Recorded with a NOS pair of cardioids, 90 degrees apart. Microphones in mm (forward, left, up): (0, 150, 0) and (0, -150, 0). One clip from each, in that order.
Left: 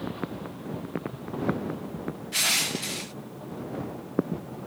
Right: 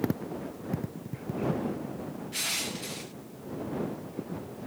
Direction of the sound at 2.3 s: 40° left.